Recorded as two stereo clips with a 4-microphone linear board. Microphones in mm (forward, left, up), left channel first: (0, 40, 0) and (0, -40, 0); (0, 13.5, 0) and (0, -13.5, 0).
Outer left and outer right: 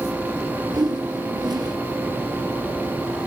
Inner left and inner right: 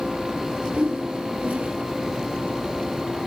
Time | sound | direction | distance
0.7 | a whoosh | 60° right (ahead or behind) | 1.5 m